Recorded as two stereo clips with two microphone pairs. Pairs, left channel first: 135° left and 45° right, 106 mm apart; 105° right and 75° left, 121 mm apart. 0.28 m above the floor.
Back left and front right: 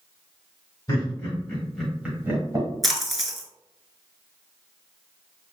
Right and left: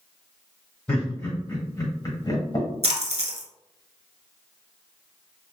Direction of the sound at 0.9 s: Straight behind.